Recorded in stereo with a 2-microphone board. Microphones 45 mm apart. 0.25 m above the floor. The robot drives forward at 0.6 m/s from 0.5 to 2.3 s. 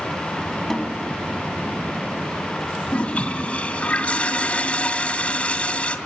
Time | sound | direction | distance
0.7 | a snare drum | 5° left (ahead or behind) | 1.6 m
2.9 | a toilet flushing | 30° left (ahead or behind) | 2.0 m